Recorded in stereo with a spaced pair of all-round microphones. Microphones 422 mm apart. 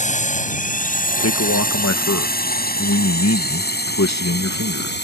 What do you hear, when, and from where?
0.0 s a drone: 15° left (ahead or behind); by 5.0 s 25° left (ahead or behind)
1.2 s a man speaking: 40° left (ahead or behind)